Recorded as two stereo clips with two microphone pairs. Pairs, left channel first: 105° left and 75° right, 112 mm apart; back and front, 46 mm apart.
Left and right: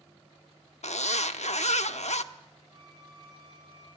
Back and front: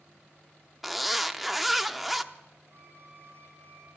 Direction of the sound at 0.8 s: 90° left.